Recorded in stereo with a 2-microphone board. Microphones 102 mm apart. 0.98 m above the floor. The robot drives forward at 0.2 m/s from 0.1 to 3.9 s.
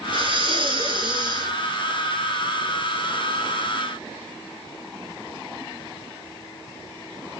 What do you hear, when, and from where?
0.1 s breathing: 55° right (ahead or behind), 1.1 m; by 1.5 s 45° right (ahead or behind), 1.3 m